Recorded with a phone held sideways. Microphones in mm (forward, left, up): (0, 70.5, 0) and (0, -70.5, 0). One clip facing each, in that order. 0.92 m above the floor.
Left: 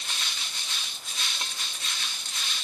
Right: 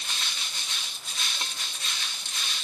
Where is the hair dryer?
I don't hear a hair dryer.